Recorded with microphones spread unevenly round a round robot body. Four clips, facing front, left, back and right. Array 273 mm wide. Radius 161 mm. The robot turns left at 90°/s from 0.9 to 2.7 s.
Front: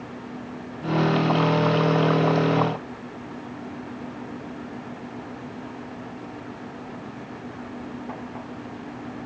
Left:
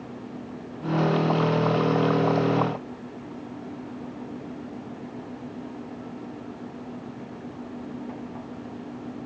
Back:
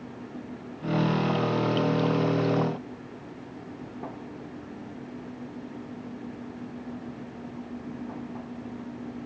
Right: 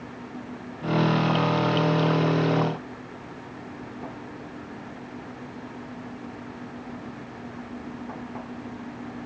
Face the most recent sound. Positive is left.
No sound to turn to.